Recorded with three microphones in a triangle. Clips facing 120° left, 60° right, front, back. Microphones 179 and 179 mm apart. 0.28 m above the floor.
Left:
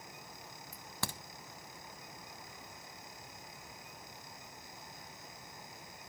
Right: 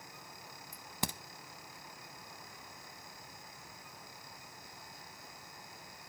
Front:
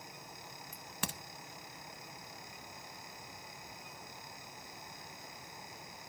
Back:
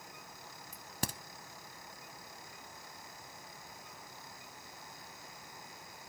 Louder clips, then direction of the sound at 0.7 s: Right 3 dB, back 3 dB; 130° right.